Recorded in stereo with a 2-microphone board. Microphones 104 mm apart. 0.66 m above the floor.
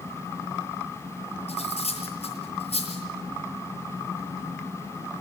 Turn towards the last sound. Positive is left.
turn(degrees=80)